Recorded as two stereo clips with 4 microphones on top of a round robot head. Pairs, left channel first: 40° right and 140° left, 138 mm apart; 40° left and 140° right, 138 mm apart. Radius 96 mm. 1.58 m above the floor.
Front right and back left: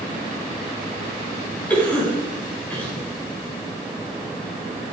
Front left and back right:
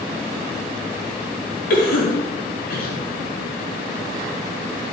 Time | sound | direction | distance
1.7 | a cough | 40° left | 4.5 m